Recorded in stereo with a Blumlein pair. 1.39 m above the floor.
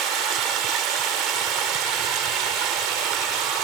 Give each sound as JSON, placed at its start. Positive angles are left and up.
{"t": 0.0, "sound": "running water", "azimuth_deg": -35}